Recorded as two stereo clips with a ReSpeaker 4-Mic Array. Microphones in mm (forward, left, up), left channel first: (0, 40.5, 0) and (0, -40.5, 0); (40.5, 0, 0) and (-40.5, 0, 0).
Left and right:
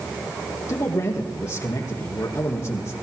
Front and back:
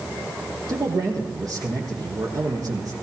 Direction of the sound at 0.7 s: 145° left.